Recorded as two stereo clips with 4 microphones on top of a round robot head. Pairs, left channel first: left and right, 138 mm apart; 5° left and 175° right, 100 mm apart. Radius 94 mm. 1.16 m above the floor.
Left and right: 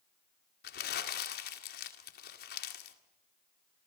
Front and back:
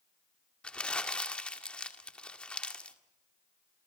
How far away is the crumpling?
About 2 m.